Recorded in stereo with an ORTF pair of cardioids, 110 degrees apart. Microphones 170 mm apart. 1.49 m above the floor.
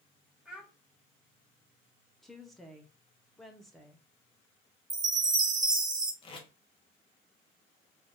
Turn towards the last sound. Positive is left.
turn(degrees=35)